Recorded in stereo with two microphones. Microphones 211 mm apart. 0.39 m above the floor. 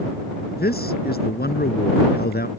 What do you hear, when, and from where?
0.6 s a man speaking: 50° left (ahead or behind)